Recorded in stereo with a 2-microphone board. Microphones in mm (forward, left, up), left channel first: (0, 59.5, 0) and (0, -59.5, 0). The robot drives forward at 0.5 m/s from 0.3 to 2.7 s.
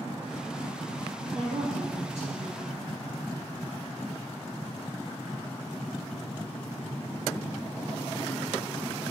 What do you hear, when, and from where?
1.3 s a woman speaking: 70° right (ahead or behind), 5.5 m; by 2.8 s 65° right (ahead or behind), 6 m